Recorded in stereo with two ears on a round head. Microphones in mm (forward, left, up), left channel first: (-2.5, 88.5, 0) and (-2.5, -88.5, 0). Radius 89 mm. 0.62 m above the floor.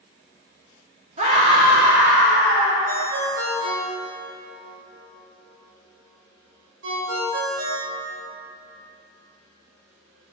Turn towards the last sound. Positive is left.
turn(degrees=-75)  # may be behind; listen again after turning